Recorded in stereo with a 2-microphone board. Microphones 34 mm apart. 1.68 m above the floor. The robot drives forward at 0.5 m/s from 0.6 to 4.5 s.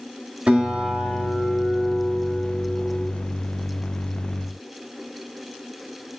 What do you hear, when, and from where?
0.5 s a guitar: 35° right (ahead or behind), 1.5 m; by 3.1 s 20° right (ahead or behind), 2.5 m